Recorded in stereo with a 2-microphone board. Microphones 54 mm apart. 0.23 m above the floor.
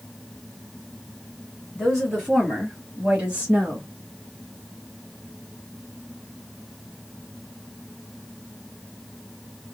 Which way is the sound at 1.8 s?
5° left (ahead or behind).